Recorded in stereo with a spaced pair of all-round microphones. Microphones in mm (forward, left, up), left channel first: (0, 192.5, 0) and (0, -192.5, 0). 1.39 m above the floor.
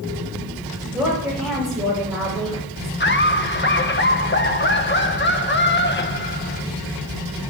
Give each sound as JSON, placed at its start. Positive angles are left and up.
{"t": 0.9, "sound": "a woman speaking", "side_deg": -10, "distance_m": 7.0}
{"t": 3.0, "sound": "laughter", "side_deg": 30, "distance_m": 1.3}